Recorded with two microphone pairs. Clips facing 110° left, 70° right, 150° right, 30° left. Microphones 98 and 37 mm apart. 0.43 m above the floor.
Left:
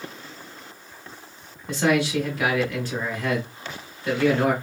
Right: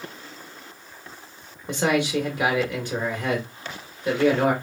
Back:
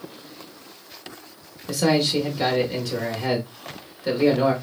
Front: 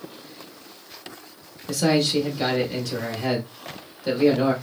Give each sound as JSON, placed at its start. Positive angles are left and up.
{"t": 1.7, "sound": "a man speaking", "azimuth_deg": -105, "distance_m": 0.9}